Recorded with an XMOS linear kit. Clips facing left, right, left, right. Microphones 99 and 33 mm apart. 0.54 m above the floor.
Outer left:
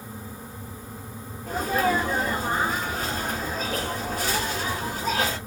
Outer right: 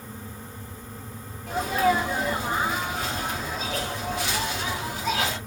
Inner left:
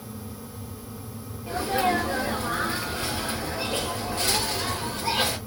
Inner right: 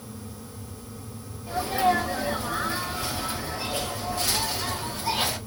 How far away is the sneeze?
About 1.8 m.